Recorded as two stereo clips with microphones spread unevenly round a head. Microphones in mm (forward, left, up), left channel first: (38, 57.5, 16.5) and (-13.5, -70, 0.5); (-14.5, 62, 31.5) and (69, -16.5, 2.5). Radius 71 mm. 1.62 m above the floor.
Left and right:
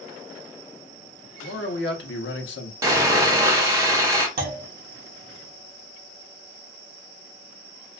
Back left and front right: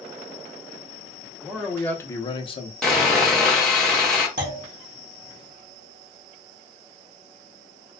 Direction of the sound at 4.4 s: 85° right.